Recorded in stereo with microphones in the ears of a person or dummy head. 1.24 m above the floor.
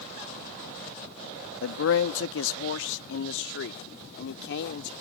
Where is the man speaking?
75° left (ahead or behind); by 4.9 s 65° left (ahead or behind).